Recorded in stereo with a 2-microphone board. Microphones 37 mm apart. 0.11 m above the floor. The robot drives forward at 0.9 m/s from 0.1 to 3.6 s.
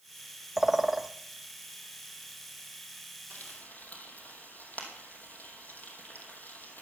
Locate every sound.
0.6 s a bird: 15° right (ahead or behind), 0.5 m; by 1.1 s 5° right (ahead or behind), 1.0 m
3.3 s frying: 50° left (ahead or behind), 3 m